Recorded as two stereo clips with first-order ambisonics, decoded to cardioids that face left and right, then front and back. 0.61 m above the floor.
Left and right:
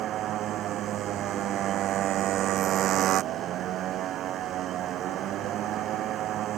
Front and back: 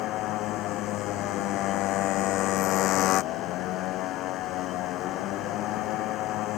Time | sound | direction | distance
0.0 | a motorcycle | 40° right | ?